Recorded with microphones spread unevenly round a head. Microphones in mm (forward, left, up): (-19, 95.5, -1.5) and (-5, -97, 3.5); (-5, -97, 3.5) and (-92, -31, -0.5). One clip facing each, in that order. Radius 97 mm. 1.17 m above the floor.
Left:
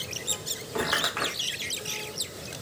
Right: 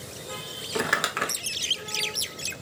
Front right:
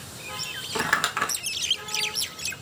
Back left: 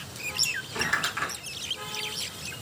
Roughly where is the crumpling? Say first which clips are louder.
Right 1 dB, front right 5 dB; ahead right.